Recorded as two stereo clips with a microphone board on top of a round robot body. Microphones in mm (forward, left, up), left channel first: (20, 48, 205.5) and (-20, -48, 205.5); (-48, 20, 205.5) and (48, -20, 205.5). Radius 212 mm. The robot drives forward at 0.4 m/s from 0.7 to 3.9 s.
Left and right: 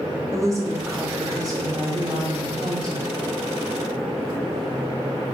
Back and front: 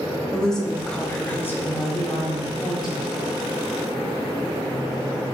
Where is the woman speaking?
125° right, 1.2 m; by 3.1 s 160° right, 1.7 m.